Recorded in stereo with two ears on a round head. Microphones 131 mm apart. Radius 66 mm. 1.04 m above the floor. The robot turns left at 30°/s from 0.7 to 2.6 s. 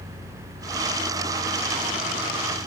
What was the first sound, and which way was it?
Only background noise.